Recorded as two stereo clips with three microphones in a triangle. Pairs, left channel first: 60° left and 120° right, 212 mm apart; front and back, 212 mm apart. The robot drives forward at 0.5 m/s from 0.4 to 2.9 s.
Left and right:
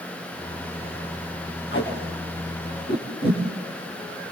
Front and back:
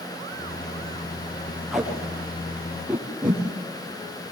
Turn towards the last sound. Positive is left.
turn(degrees=95)